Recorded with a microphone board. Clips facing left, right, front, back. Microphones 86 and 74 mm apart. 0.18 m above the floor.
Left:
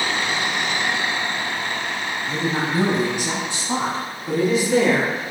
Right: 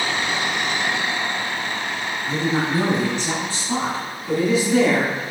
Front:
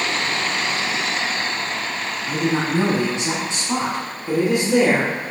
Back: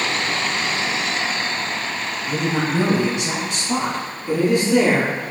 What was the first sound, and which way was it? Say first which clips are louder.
A woman speaking: right 2 dB, front 1 dB; 30° right.